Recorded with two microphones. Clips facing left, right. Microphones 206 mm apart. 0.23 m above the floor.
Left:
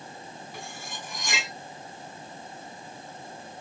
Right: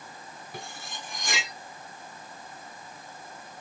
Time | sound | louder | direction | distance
0.5 | cutlery clinking | right 2 dB | 55° right (ahead or behind) | 1.1 m